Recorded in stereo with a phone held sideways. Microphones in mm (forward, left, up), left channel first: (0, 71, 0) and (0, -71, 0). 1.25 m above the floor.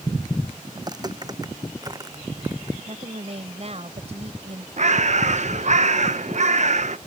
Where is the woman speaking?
45° right (ahead or behind).